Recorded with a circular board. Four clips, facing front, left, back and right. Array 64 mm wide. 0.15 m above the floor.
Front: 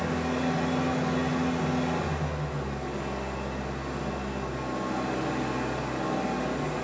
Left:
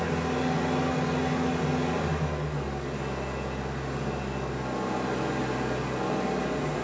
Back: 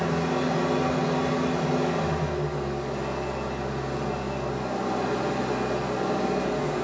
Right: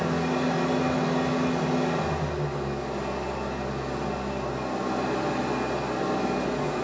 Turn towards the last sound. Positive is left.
turn(degrees=-140)